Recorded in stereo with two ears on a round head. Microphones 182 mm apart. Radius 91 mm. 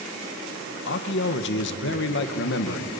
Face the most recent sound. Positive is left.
turn(degrees=60)  # may be behind; listen again after turning